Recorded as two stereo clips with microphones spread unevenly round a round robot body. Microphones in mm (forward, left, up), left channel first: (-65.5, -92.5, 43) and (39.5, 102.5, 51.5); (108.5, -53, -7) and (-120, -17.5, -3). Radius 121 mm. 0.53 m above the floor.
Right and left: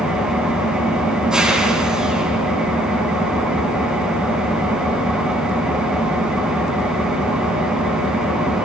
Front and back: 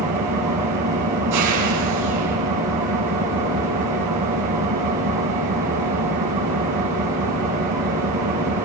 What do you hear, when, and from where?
0.0 s an engine running: 150° left, 4 m